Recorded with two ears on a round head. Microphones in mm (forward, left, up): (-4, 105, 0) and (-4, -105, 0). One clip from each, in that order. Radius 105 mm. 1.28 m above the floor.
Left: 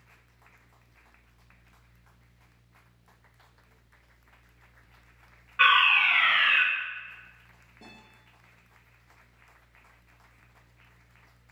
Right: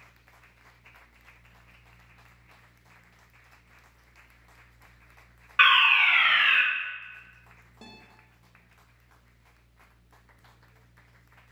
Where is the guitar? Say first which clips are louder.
Right 1 dB; 40° right (ahead or behind), 1.8 m.